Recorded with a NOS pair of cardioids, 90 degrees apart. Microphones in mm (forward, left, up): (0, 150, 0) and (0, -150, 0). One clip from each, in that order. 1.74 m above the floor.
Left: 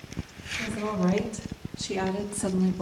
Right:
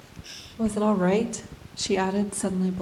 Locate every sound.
0.6 s a woman speaking: 65° right, 1.5 m; by 2.8 s 10° left, 0.7 m